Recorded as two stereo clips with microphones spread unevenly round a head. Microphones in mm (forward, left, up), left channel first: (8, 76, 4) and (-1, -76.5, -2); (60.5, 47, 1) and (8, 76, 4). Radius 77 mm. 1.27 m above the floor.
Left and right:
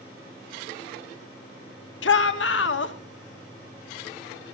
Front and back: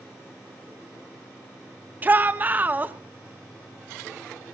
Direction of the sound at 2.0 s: 90° left.